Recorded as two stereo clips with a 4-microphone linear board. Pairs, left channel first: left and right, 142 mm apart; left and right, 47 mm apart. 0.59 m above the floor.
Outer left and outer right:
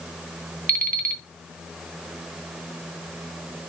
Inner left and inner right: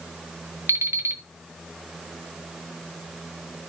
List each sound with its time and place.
0.7 s an alarm clock: 80° right, 1.1 m